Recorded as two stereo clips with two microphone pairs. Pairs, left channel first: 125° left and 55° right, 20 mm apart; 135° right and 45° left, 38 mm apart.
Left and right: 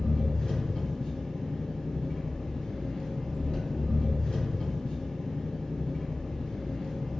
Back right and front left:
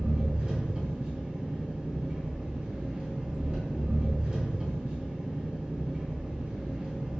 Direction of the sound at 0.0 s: 110° left.